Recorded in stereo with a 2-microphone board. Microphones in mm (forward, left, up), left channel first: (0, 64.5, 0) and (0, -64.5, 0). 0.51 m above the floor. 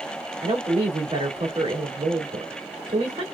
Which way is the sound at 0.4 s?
55° right (ahead or behind).